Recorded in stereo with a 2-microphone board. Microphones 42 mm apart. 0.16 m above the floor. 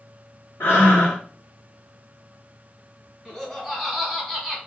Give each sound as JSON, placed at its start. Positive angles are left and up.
{"t": 0.6, "sound": "breathing", "side_deg": 80, "distance_m": 1.4}
{"t": 3.2, "sound": "laughter", "side_deg": 5, "distance_m": 1.7}